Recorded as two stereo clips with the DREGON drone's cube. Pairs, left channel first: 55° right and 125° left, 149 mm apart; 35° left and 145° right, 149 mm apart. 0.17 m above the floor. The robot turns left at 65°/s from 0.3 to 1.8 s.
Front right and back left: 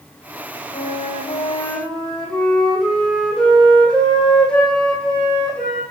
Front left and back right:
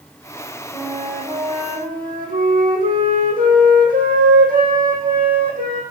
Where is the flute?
70° right, 2.5 m; by 5.8 s 140° right, 2.5 m.